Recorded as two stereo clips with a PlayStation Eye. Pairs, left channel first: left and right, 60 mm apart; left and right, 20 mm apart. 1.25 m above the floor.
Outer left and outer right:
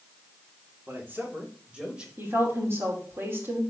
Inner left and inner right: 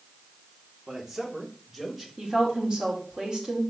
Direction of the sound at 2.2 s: 40° right (ahead or behind).